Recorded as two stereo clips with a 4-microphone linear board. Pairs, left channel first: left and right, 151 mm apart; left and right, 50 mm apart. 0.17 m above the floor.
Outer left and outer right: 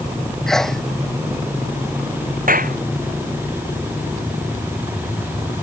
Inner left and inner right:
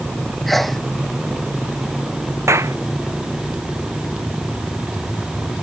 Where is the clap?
75° right (ahead or behind).